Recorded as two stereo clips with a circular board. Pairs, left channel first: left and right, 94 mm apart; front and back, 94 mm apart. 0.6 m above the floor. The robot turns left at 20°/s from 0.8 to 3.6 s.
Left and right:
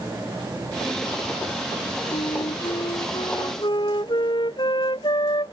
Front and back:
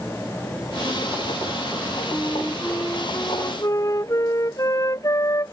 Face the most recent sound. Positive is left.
turn(degrees=55)